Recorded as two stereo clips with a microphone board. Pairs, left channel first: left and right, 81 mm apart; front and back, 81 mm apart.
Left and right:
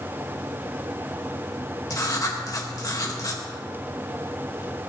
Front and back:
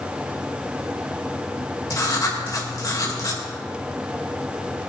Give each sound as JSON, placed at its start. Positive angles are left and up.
{"t": 1.9, "sound": "writing", "azimuth_deg": 45, "distance_m": 2.0}